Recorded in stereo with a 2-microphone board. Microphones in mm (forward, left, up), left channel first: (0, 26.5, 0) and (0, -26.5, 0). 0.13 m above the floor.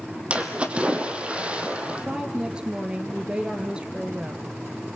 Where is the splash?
25° right (ahead or behind), 2.5 m.